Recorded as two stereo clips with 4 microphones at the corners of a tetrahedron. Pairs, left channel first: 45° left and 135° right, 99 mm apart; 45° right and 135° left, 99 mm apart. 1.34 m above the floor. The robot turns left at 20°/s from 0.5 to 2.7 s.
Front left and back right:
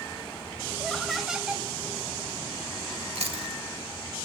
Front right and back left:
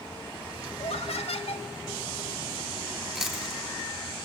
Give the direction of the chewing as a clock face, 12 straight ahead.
5 o'clock.